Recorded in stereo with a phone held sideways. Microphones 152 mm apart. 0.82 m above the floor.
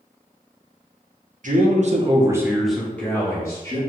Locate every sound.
1.4 s a man speaking: 60° right (ahead or behind), 0.7 m; by 3.8 s 20° left (ahead or behind), 1.4 m